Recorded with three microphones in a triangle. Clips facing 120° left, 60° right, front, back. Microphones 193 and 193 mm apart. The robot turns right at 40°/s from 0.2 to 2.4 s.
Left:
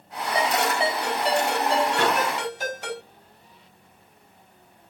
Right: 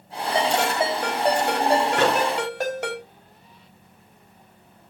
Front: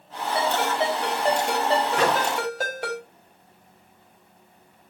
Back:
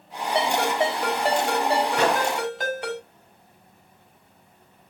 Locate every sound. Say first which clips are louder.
0.3 s a ringtone: right 2 dB, back 1 dB; 125° right, 6 m; by 3.0 s 40° right, 6 m
2.0 s a microwave: right 3 dB, back 1 dB; 55° right, 6.5 m; by 2.3 s 40° right, 6.5 m